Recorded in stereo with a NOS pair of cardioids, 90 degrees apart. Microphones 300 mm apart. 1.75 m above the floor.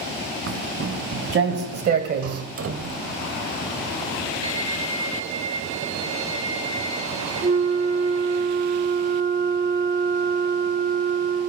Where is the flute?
35° right, 2.0 m.